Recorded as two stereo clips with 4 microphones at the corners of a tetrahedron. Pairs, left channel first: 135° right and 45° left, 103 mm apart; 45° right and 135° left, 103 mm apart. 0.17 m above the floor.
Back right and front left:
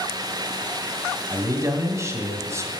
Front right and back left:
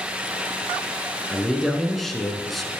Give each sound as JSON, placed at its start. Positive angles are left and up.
{"t": 1.3, "sound": "a man speaking", "azimuth_deg": 40, "distance_m": 1.4}